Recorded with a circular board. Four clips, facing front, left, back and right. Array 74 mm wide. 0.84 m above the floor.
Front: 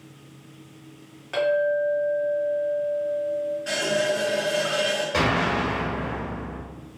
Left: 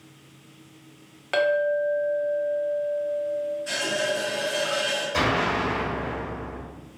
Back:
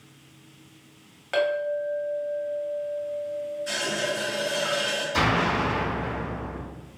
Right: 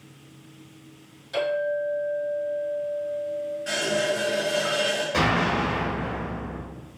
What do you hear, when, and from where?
1.3 s a clink: 105° left, 0.6 m
3.7 s a running tap: 30° right, 1.3 m
5.1 s an explosion: 20° right, 1.4 m